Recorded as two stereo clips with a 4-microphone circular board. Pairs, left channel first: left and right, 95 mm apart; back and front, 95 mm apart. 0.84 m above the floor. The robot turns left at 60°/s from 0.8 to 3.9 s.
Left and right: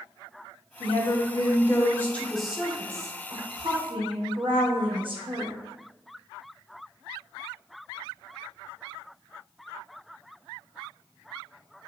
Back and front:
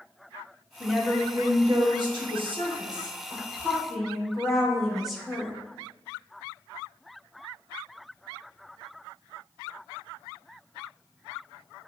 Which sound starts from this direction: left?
A woman speaking, at 0.8 s.